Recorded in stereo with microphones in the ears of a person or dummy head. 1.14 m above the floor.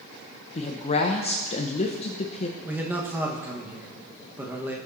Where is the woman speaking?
35° left (ahead or behind), 0.9 m.